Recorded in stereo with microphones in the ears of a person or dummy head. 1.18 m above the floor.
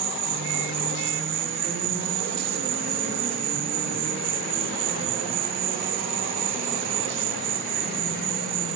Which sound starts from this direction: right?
An insect, at 0.0 s.